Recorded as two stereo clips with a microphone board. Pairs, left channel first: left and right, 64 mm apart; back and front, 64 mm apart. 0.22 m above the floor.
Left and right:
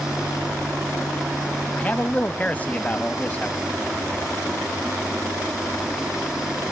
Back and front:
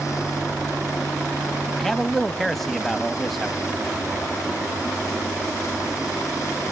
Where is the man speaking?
95° left, 1.0 m.